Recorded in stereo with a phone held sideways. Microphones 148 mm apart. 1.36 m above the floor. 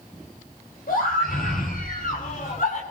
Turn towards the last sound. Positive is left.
turn(degrees=60)  # may be behind; listen again after turning